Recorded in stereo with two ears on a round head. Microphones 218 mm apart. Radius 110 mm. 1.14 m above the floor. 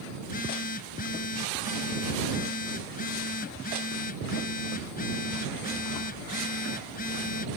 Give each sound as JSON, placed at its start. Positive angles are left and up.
{"t": 0.2, "sound": "a phone buzzing", "side_deg": 40}